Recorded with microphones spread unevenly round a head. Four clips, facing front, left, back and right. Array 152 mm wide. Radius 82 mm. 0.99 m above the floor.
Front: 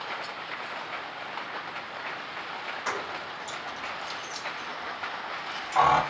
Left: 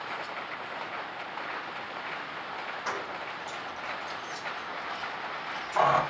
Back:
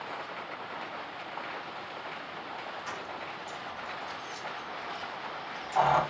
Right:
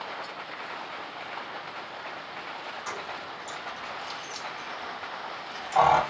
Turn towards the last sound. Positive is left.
turn(degrees=-70)